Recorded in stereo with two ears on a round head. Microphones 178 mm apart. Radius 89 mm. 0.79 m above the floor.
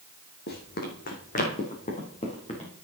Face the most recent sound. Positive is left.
turn(degrees=30)  # may be behind; listen again after turning